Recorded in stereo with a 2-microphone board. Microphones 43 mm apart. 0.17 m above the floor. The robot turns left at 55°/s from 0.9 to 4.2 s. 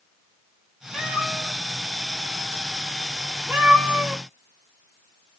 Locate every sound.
0.9 s a cat meowing: 15° left (ahead or behind), 4 m; by 4.2 s 15° right (ahead or behind), 4 m